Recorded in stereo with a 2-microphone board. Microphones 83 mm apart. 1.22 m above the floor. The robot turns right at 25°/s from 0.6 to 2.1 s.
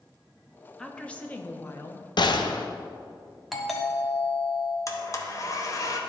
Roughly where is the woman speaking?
Ahead.